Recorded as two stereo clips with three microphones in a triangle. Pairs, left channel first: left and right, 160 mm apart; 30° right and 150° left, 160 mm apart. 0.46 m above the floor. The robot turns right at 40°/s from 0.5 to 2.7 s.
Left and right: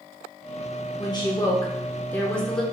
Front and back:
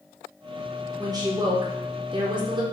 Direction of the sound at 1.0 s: 110° left.